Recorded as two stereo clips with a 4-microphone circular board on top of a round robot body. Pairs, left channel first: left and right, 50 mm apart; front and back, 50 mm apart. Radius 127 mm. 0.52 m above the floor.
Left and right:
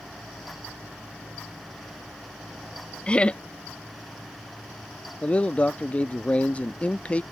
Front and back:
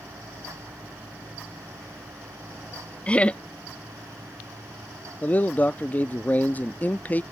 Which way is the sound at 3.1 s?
40° left.